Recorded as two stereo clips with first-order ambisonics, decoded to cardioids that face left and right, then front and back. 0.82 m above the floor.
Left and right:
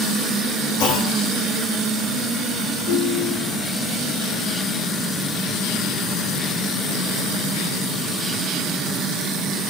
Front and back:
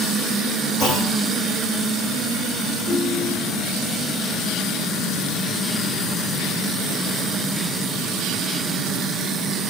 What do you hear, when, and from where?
0.8 s a clunk: 100° left, 7 m
2.9 s a ringtone: 60° left, 5.5 m